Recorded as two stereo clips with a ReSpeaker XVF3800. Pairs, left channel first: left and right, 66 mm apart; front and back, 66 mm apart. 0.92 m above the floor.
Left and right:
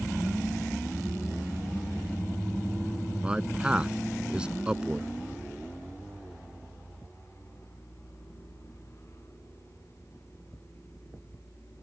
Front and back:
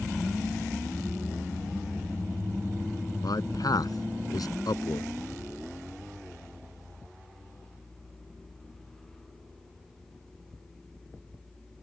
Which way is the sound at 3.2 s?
15° right.